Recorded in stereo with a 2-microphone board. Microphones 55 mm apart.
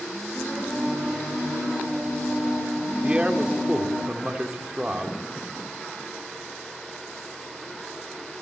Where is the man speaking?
20° right (ahead or behind), 1.2 m.